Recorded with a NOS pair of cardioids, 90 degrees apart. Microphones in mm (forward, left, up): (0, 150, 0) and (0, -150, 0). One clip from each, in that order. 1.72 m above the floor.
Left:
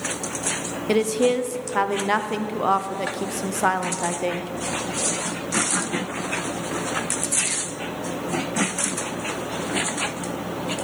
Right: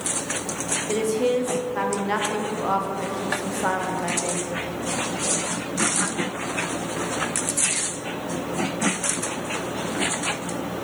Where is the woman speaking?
40° left, 0.9 m.